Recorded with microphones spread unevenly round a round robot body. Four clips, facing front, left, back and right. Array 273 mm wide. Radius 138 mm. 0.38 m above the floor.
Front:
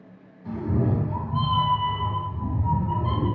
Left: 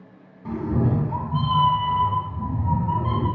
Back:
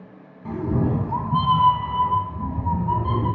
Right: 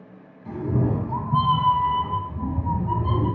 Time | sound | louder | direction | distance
0.5 | a cat meowing | left 1 dB, back 2 dB | 145° left | 0.6 m